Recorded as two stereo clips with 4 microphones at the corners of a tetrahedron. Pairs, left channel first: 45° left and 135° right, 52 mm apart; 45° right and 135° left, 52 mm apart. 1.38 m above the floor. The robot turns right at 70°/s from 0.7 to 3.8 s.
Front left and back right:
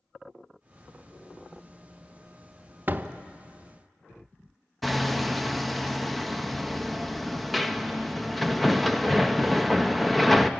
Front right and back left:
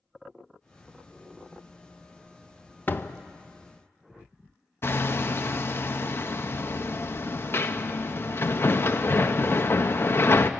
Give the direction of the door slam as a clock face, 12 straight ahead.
3 o'clock.